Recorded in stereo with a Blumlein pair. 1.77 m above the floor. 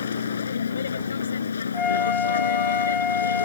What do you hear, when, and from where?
0.0 s a vehicle: 70° left; by 3.5 s 75° left
1.7 s a flute: 20° left